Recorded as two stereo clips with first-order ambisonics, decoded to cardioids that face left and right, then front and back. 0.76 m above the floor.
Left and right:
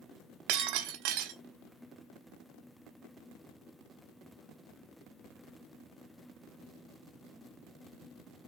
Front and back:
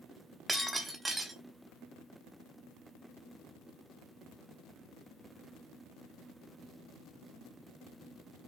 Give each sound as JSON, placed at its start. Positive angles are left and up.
{"t": 0.5, "sound": "breaking glass", "azimuth_deg": -100, "distance_m": 0.9}